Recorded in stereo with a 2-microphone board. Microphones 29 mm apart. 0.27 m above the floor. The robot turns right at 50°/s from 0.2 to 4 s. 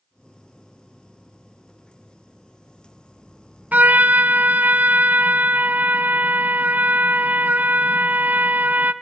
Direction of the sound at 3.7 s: 70° right (ahead or behind).